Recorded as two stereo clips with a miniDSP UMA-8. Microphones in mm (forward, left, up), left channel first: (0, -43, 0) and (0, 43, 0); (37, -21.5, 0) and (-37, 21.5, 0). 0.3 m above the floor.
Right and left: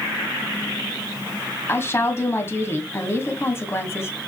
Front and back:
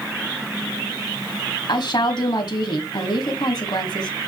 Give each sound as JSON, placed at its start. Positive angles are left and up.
{"t": 1.7, "sound": "a woman speaking", "azimuth_deg": -35, "distance_m": 2.0}